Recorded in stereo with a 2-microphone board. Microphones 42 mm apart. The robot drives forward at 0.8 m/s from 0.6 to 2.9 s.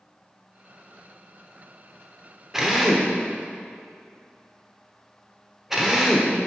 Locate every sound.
2.5 s a drill: 10° right (ahead or behind), 1.2 m